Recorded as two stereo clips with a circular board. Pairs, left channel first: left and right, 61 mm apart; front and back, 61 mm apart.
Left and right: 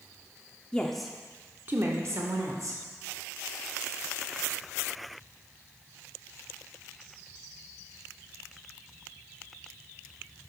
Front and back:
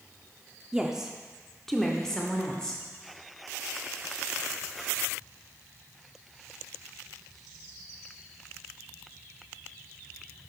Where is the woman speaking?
130° left, 0.9 m; by 2.8 s 75° right, 1.8 m.